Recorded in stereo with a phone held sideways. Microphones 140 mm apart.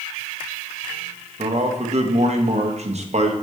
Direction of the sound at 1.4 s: 50° right (ahead or behind).